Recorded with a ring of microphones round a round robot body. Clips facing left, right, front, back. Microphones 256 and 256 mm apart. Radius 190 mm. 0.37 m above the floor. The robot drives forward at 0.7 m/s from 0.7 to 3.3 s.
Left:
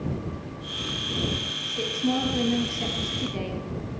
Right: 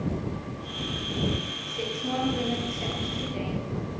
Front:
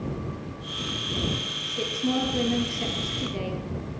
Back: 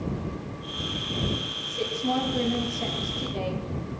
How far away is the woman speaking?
About 9 m.